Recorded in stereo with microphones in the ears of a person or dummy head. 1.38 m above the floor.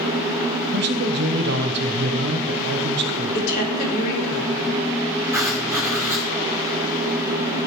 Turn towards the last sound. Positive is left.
turn(degrees=-15)  # may be behind; listen again after turning